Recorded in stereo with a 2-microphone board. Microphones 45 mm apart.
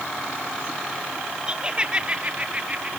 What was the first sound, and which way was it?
Laughter, 20° right (ahead or behind).